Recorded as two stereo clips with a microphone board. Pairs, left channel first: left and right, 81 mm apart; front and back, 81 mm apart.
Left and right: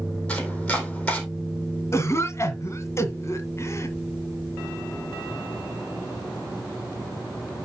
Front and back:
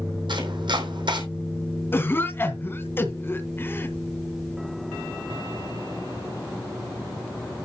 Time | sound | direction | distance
0.3 | chopping | 165° left | 3.5 m
1.9 | a cough | 50° left | 1.9 m